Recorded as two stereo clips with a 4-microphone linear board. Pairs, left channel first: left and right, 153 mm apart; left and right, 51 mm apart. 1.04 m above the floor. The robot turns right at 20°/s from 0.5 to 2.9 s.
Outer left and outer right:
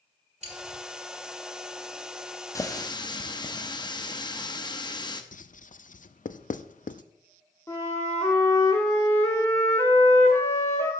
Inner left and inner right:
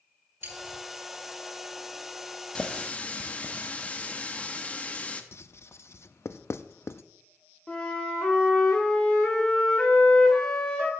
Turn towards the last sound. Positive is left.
turn(degrees=20)  # may be behind; listen again after turning